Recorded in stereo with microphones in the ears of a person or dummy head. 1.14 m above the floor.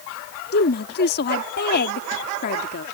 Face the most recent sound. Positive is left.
turn(degrees=50)  # may be behind; listen again after turning